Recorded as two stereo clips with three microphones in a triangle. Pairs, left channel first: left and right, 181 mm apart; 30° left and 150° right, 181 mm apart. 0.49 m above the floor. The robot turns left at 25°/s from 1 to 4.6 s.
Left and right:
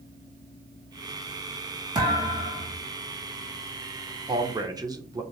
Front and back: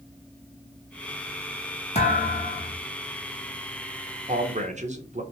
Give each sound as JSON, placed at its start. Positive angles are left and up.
{"t": 1.9, "sound": "a thud", "azimuth_deg": -25, "distance_m": 1.5}
{"t": 4.3, "sound": "a man speaking", "azimuth_deg": -140, "distance_m": 0.8}